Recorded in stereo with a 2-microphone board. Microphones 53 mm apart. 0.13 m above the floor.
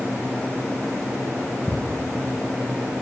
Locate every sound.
1.7 s ticking: 20° left (ahead or behind), 2.5 m